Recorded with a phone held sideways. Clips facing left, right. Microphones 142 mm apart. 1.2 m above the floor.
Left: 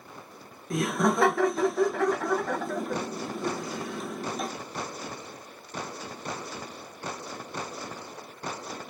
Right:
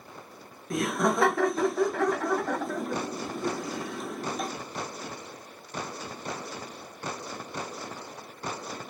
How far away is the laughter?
About 0.7 m.